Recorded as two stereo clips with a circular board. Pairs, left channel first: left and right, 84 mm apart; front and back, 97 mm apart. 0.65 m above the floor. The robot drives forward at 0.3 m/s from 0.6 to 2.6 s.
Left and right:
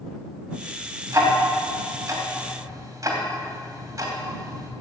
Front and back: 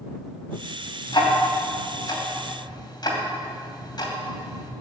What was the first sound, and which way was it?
Ticking, 35° right.